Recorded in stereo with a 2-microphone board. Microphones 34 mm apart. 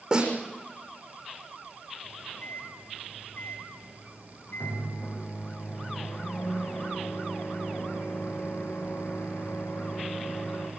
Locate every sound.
0.1 s a snare drum: 25° right (ahead or behind), 7 m
2.0 s a microwave: 70° left (ahead or behind), 9.5 m